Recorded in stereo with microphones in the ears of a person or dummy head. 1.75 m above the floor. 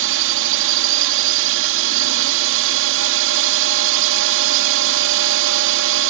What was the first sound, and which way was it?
A drone, 70° right (ahead or behind).